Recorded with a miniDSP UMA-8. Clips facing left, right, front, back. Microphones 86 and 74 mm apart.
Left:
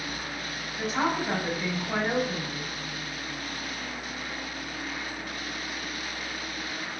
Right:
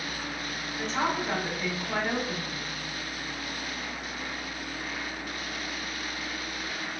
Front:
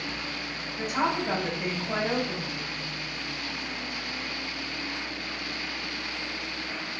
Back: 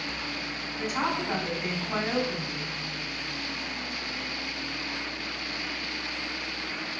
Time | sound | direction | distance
0.8 | a woman speaking | 15° left | 3 m